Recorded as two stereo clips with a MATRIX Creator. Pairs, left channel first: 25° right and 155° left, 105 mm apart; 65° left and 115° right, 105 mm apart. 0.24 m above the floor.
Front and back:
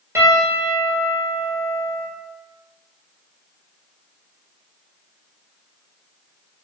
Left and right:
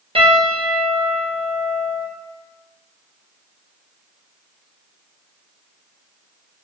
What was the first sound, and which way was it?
A piano, 140° right.